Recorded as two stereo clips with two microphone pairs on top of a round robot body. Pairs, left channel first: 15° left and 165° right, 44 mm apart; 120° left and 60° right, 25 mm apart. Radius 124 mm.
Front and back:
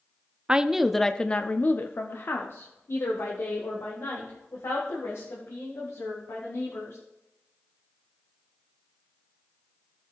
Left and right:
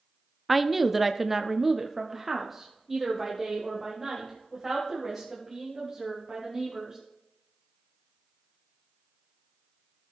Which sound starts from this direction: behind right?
A woman speaking, at 0.5 s.